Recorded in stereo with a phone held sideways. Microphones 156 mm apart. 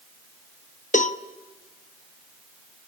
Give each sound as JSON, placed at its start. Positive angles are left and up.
{"t": 0.9, "sound": "a cowbell", "side_deg": 55, "distance_m": 0.7}